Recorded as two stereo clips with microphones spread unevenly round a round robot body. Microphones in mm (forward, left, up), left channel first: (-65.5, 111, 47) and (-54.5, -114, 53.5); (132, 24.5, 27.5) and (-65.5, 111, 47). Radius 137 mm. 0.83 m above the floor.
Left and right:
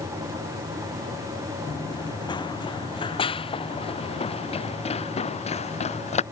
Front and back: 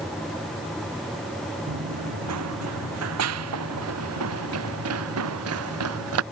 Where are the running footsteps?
165° left; by 6.2 s 155° left.